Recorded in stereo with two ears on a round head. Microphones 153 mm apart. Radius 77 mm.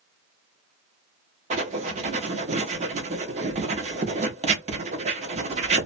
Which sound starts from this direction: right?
Writing, at 1.5 s.